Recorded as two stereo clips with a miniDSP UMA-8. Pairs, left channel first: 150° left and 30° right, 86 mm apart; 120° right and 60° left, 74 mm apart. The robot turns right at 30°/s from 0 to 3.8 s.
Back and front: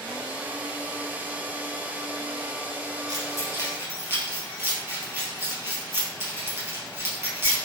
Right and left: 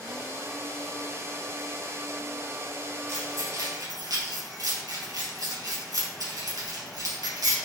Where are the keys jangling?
10° left, 3 m; by 7.5 s 30° left, 3 m.